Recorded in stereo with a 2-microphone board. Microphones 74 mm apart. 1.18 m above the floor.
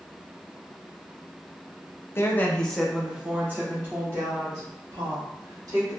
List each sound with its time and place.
2.1 s a woman speaking: 35° left (ahead or behind), 0.6 m; by 6.0 s 45° right (ahead or behind), 2 m